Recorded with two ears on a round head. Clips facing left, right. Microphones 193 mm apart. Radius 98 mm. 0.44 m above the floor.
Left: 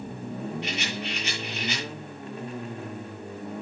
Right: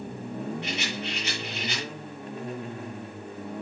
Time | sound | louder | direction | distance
0.6 | a rattle | even | 55° left (ahead or behind) | 8.5 m